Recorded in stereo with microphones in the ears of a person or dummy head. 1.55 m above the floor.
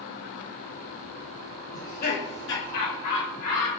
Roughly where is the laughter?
Left.